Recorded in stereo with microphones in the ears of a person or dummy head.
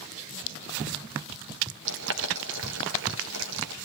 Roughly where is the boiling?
Right.